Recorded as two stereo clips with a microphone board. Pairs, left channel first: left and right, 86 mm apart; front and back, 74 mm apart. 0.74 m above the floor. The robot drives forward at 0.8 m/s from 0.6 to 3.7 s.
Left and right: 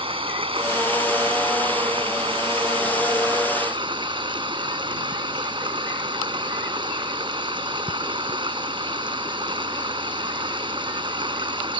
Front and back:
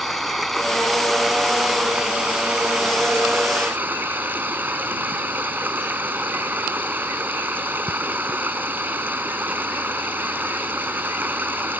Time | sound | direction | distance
0.0 | running water | 90° right | ?